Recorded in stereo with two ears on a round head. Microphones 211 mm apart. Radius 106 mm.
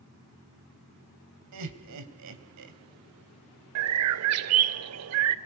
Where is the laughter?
75° right (ahead or behind), 3 m.